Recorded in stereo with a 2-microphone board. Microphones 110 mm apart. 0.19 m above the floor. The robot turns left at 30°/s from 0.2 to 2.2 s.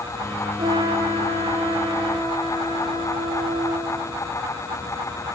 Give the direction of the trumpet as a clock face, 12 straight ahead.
5 o'clock.